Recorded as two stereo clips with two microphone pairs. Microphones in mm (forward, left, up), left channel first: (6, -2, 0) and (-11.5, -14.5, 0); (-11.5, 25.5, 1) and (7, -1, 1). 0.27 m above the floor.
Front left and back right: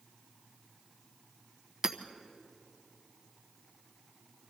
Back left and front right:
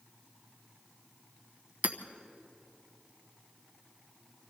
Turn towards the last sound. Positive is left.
turn(degrees=-85)